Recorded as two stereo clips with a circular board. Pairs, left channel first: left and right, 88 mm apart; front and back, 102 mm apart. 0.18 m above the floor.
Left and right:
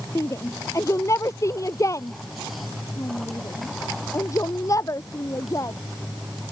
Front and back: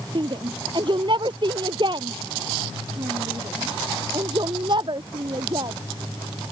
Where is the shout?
145° left; by 5.8 s 140° left.